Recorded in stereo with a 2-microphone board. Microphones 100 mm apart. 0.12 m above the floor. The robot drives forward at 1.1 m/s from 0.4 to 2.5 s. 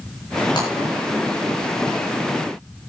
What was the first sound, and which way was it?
Breaking glass, 50° left (ahead or behind).